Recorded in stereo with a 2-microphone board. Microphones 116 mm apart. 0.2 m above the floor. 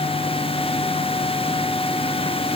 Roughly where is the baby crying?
I don't hear a baby crying.